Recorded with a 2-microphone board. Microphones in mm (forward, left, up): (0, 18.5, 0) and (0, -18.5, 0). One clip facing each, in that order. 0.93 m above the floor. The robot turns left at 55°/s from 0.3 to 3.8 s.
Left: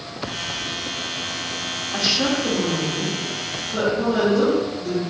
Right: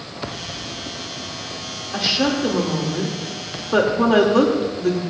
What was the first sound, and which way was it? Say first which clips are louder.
A woman speaking: right 2 dB; 5° right.